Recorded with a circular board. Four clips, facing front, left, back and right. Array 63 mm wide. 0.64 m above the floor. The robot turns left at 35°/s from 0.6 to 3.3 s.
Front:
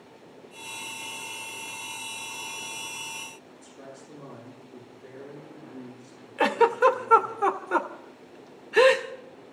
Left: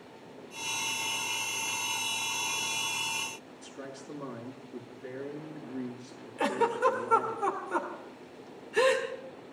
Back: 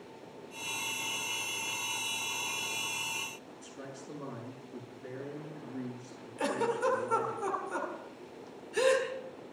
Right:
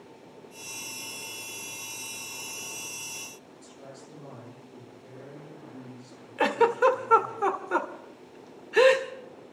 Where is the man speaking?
115° left, 7.5 m.